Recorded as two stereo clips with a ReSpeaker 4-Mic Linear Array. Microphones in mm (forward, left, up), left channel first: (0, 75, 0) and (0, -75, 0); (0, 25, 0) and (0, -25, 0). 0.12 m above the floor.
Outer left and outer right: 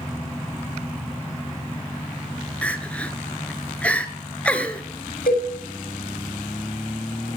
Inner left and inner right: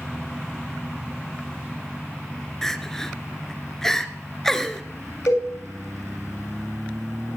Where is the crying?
10° left (ahead or behind), 1.0 m.